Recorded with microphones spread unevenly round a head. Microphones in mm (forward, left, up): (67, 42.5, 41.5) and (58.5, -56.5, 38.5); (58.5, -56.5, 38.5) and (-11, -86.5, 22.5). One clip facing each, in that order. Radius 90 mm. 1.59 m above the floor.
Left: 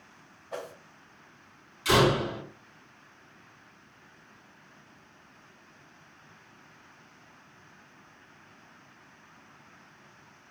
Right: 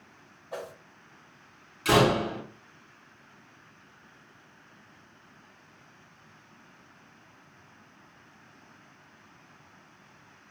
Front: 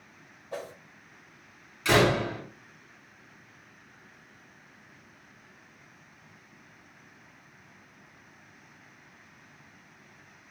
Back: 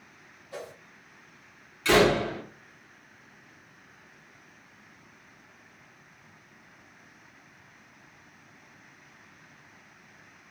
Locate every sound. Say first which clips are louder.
0.5 s a whoosh: even, front 2 dB; 20° right, 1.7 m
1.9 s a door slam: right 1 dB, back 2 dB; 60° right, 2.5 m